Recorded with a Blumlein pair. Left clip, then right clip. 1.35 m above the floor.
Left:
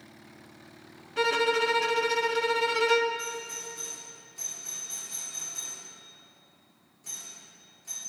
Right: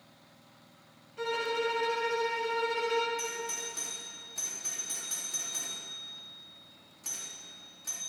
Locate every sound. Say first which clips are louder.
1.2 s a violin: left 7 dB; 45° left, 0.9 m
3.2 s a doorbell: even; 50° right, 3.5 m